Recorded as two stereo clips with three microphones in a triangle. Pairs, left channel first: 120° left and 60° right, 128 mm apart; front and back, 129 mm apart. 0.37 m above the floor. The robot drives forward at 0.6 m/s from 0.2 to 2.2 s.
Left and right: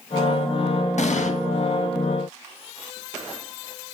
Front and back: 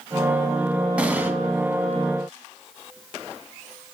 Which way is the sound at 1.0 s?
100° left.